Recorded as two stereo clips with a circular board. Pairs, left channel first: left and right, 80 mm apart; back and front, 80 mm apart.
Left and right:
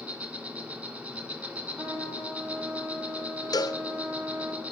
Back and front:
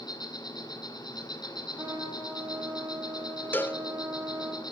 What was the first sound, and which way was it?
An insect, 165° right.